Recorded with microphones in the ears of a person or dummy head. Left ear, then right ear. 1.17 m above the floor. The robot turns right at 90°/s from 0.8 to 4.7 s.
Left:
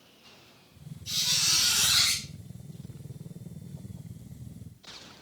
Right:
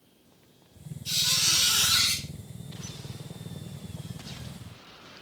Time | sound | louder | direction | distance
1.1 | a squeak | right 2 dB | 105° right | 1.1 m